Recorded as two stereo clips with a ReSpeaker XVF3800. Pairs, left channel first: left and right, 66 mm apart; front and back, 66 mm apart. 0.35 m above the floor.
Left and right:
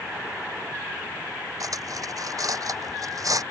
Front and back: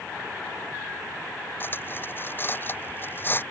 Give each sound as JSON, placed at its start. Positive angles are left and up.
{"t": 1.6, "sound": "cutlery clinking", "azimuth_deg": -55}